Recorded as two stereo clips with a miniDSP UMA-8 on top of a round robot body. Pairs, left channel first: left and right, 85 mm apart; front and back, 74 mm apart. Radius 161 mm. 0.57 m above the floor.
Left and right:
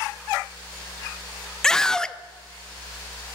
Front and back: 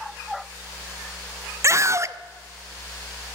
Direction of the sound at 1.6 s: 170° left.